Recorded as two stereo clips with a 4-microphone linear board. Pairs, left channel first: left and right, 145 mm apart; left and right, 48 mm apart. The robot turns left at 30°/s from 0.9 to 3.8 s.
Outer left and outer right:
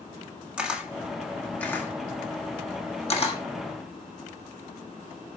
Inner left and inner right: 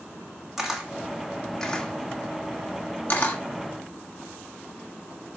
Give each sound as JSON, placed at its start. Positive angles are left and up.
{"t": 0.6, "sound": "a camera shutter", "side_deg": -5, "distance_m": 1.6}